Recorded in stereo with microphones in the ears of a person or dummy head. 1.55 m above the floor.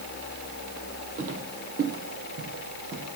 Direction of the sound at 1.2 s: 40° right (ahead or behind).